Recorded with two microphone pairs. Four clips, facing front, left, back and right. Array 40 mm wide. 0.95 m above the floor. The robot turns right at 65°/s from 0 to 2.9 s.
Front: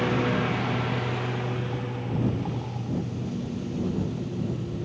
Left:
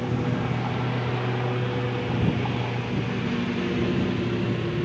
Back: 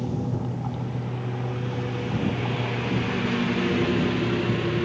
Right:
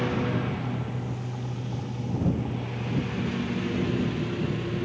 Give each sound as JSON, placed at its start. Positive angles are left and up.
{"t": 0.0, "sound": "a lawn mower", "azimuth_deg": -20}